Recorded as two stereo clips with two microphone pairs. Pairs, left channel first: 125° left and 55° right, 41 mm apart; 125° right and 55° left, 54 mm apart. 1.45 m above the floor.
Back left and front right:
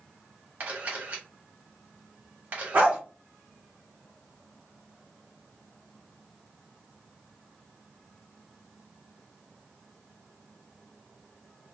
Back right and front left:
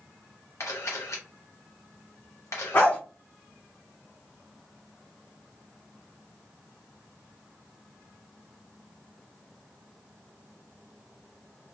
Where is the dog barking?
85° right, 1.0 m.